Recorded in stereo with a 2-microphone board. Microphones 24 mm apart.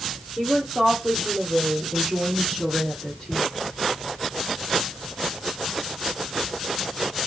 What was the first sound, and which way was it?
A woman speaking, 15° right (ahead or behind).